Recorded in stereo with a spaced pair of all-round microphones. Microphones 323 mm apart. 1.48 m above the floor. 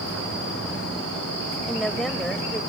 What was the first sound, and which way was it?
A woman speaking, centre (ahead or behind).